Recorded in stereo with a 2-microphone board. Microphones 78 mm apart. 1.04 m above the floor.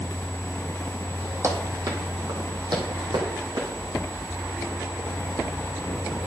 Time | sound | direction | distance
1.4 | running footsteps | 40° right (ahead or behind) | 2 m